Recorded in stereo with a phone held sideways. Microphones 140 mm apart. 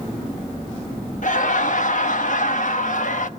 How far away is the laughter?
About 1.4 m.